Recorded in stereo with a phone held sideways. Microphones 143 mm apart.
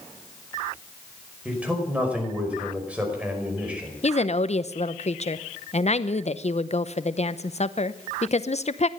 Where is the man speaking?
10° right (ahead or behind), 5.5 m.